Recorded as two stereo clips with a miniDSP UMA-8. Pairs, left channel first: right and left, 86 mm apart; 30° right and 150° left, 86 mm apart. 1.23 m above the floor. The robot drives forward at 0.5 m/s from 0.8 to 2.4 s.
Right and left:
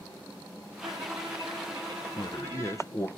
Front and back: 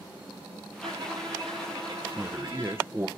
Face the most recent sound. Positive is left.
turn(degrees=-145)